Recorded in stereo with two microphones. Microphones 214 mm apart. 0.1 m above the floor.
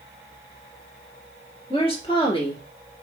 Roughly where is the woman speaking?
Left.